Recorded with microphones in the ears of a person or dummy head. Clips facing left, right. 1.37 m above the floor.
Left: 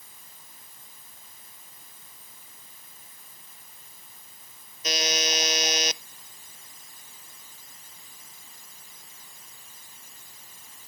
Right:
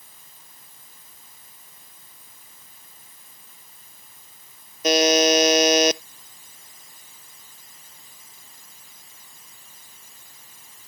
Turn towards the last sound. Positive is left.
turn(degrees=-50)  # may be behind; listen again after turning